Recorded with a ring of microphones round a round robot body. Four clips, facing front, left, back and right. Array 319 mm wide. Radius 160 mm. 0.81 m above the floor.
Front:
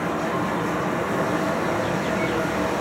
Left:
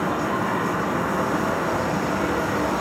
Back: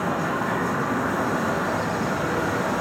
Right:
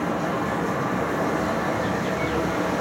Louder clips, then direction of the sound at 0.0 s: Left 1 dB, even; 105° left.